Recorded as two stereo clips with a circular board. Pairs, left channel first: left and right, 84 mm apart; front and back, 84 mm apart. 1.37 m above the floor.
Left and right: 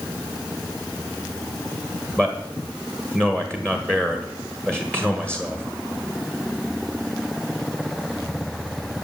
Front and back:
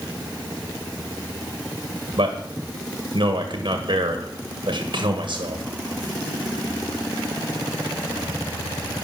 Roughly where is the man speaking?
Behind.